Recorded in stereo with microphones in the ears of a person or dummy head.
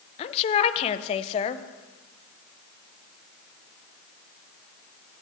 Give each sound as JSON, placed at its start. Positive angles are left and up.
{"t": 0.2, "sound": "a woman speaking", "side_deg": 30, "distance_m": 0.8}